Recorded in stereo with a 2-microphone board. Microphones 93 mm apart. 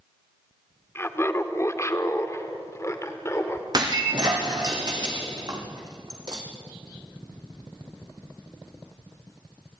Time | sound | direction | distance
0.9 | laughter | 25° left (ahead or behind) | 1.6 m
3.7 | breaking glass | 45° right (ahead or behind) | 4 m